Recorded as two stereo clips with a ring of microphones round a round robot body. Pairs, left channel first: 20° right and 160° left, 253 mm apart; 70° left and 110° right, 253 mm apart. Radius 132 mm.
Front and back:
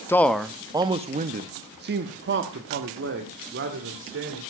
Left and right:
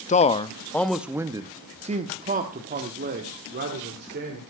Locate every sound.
0.1 s a man speaking: 50° left, 0.7 m; by 4.4 s 160° right, 2 m